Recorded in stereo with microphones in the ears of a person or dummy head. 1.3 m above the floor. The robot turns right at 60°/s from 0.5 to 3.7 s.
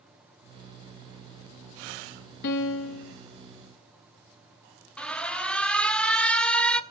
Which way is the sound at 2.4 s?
55° left.